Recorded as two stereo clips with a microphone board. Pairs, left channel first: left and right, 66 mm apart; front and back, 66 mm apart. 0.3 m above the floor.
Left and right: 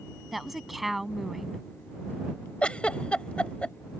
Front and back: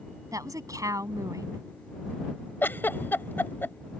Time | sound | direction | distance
0.3 | a woman speaking | 175° right | ?
2.6 | a giggle | 30° left | ?